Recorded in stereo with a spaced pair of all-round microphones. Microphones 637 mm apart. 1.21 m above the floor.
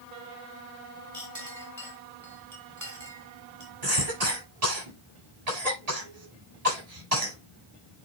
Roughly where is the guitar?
No guitar in this recording.